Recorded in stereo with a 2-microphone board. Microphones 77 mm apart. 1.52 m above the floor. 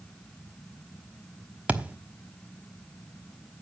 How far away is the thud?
About 1.1 m.